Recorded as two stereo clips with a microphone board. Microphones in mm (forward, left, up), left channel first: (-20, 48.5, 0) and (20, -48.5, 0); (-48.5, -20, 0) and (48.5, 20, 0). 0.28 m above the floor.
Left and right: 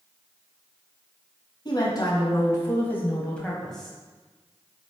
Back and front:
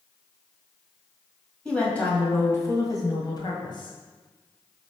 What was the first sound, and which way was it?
A woman speaking, 125° left.